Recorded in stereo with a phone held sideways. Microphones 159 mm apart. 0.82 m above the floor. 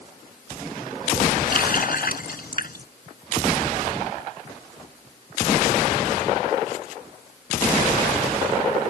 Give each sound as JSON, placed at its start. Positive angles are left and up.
{"t": 1.5, "sound": "a running tap", "side_deg": 65}